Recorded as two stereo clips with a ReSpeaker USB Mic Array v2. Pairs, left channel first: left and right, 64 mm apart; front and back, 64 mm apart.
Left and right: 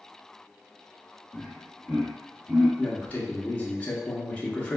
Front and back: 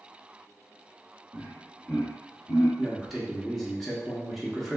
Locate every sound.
1.3 s laughter: 170° left, 0.9 m; by 2.7 s 25° right, 1.1 m
2.8 s a man speaking: 80° left, 0.7 m